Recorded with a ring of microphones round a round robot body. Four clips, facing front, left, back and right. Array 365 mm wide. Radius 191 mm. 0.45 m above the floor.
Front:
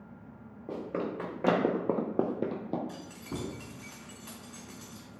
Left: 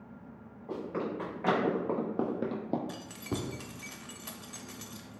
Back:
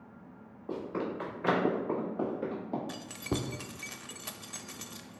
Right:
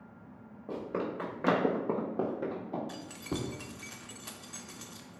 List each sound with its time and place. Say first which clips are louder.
0.7 s running footsteps: even, front 1 dB; 35° right, 1.9 m; by 2.8 s 60° left, 0.8 m
2.9 s keys jangling: even, back 4 dB; straight behind, 0.6 m